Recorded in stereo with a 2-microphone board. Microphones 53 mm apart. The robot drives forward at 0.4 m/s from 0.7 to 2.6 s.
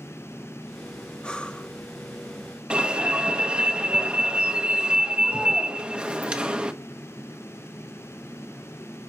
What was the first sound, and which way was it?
Breathing, 15° left (ahead or behind).